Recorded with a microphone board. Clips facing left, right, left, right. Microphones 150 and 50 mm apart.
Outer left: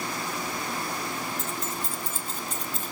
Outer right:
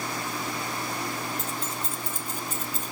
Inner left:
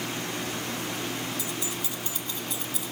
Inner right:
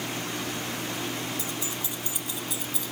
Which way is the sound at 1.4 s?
35° right (ahead or behind).